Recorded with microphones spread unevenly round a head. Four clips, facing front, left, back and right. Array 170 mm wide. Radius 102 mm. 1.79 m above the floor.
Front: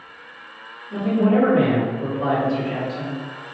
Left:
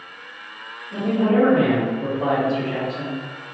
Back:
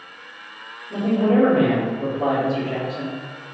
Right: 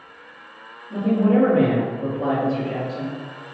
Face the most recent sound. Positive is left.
turn(degrees=-135)